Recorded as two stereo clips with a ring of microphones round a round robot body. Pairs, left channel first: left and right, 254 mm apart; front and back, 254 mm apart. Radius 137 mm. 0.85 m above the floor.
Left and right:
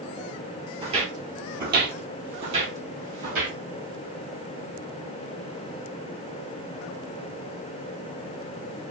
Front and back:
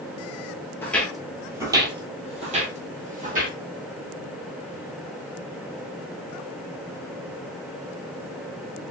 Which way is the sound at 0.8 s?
65° right.